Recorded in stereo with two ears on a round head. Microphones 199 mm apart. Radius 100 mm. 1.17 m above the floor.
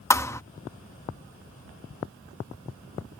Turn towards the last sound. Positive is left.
turn(degrees=15)  # may be behind; listen again after turning